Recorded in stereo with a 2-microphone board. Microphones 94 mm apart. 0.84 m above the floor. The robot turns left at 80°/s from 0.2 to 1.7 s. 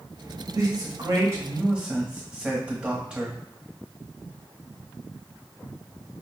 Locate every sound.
0.5 s a man speaking: 70° right, 0.9 m; by 3.4 s 160° right, 0.9 m